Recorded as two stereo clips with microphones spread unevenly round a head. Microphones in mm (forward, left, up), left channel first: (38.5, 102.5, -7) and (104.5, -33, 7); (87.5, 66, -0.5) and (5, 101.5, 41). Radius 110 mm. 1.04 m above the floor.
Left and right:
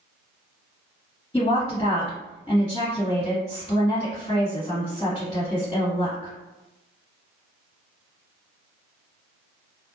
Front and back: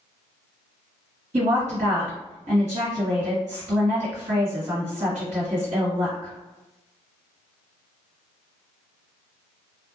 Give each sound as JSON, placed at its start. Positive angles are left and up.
{"t": 1.3, "sound": "a woman speaking", "azimuth_deg": -175, "distance_m": 1.6}